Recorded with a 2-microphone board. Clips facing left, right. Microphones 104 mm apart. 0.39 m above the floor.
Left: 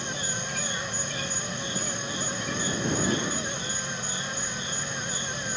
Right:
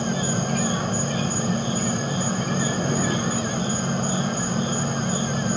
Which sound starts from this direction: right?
An insect, at 0.0 s.